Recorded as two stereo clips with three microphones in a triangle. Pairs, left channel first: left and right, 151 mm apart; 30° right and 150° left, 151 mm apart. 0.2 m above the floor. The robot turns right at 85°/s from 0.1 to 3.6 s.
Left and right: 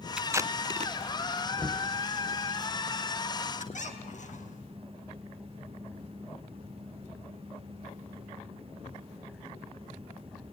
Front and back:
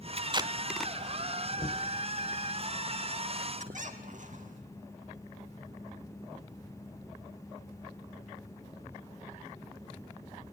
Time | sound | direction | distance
0.2 | tape being pulled | 175° right | 0.6 m
1.6 | knocking | 20° right | 1.7 m
3.6 | a squeak | 120° left | 1.9 m